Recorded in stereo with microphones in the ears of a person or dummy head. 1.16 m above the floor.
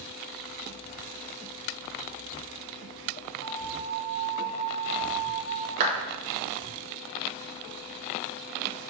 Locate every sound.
3.4 s a flute: 45° right (ahead or behind), 2 m
5.8 s a clap: 40° right (ahead or behind), 1.4 m